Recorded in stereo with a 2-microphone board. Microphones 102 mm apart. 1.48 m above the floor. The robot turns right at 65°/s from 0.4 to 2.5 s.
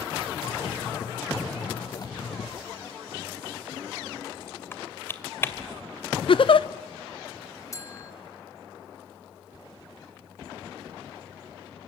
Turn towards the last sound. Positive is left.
turn(degrees=30)  # may be behind; listen again after turning